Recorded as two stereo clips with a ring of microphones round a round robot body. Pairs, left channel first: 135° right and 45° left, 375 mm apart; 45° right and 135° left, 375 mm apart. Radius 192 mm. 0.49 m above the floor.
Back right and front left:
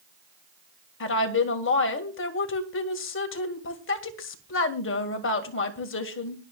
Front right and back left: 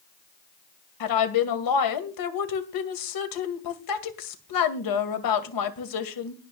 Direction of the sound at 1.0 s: 75° right.